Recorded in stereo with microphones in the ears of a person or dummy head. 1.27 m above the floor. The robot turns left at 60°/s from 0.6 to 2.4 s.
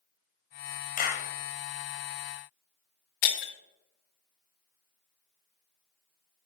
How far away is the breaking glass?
About 1.2 m.